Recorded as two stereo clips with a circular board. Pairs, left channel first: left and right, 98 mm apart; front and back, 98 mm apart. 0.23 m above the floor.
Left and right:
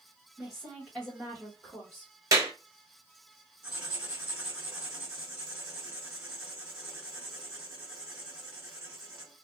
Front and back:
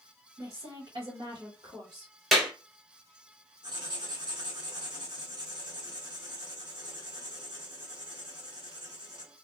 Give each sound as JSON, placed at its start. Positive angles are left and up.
{"t": 0.4, "sound": "a woman speaking", "azimuth_deg": -170, "distance_m": 1.5}
{"t": 2.3, "sound": "a clap", "azimuth_deg": -90, "distance_m": 1.0}
{"t": 3.6, "sound": "writing", "azimuth_deg": -165, "distance_m": 2.0}